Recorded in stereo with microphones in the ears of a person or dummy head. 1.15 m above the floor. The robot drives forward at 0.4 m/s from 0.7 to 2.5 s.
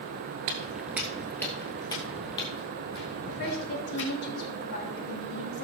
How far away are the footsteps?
About 1.2 m.